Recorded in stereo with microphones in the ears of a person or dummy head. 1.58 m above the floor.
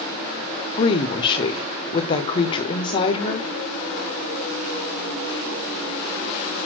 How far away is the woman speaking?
About 0.7 m.